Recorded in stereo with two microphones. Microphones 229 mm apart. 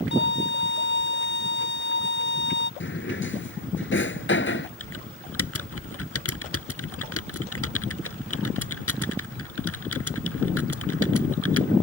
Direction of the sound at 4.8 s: 85° left.